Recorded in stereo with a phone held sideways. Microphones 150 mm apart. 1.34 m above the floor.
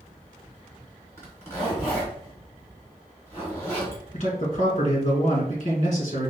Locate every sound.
1.2 s a zipper: 20° left (ahead or behind), 2.5 m
4.1 s a man speaking: 50° left (ahead or behind), 1.9 m